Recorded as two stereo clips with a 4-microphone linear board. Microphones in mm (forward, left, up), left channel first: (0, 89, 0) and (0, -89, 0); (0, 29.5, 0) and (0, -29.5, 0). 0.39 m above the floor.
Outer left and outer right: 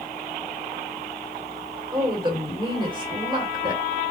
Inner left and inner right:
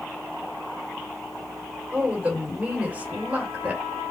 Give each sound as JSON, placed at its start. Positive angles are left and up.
{"t": 1.9, "sound": "a woman speaking", "side_deg": -30, "distance_m": 1.6}